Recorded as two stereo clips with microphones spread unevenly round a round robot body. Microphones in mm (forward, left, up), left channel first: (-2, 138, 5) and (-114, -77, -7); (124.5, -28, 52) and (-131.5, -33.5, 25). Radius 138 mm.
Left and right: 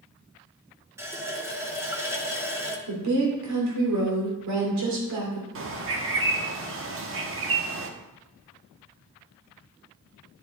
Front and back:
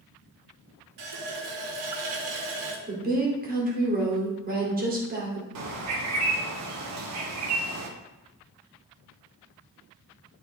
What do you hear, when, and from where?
1.0 s a running tap: 165° left, 1.7 m
2.9 s a woman speaking: 125° right, 2.5 m
5.5 s a bird: 155° right, 1.2 m